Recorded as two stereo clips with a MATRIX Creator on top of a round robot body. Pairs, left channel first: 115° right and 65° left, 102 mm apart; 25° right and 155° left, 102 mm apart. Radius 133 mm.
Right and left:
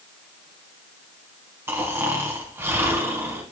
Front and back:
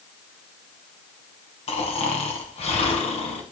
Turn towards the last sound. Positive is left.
turn(degrees=0)